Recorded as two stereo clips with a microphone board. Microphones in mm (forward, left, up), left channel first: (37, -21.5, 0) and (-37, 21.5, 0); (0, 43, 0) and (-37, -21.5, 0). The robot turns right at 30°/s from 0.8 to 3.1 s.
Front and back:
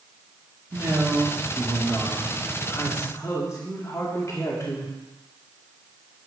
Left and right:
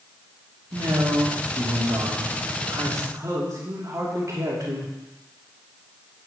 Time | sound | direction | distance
0.7 | a man speaking | 150° right | 3 m